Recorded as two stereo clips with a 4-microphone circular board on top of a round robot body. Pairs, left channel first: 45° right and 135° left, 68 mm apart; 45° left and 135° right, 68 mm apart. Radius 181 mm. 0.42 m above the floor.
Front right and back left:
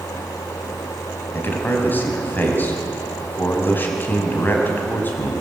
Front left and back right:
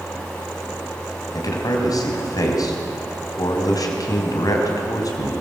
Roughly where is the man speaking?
Ahead.